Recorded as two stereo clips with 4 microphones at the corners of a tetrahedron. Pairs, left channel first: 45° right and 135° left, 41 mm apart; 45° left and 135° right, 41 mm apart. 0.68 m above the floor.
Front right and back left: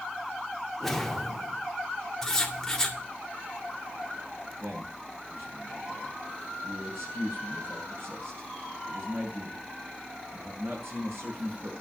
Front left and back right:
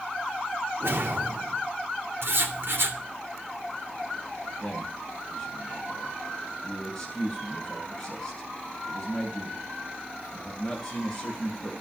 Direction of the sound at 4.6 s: 115° left.